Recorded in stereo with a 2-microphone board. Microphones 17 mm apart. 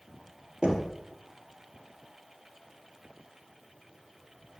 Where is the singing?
No singing in this recording.